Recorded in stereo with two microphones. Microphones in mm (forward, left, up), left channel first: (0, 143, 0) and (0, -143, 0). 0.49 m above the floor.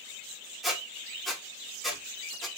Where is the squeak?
Centre (ahead or behind), 0.6 m.